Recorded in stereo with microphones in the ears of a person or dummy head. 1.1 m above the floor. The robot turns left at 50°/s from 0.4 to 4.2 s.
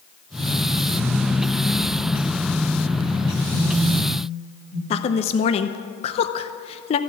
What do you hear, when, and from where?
3.5 s a phone buzzing: 85° left, 2.5 m; by 4.8 s 50° left (ahead or behind), 2.5 m
4.9 s a woman speaking: 35° left (ahead or behind), 0.6 m